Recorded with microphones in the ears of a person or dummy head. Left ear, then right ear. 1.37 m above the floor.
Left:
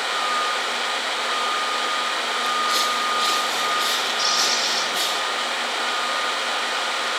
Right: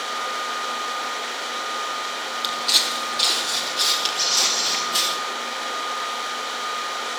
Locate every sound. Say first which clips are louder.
2.4 s footsteps: right 2 dB; 30° right (ahead or behind), 3 m; by 5.2 s 45° right (ahead or behind), 5 m
4.2 s a bird: left 1 dB; 35° right (ahead or behind), 7.5 m